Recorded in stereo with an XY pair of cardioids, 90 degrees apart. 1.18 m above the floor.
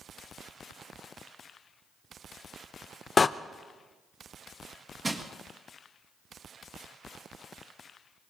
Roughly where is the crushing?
Ahead right.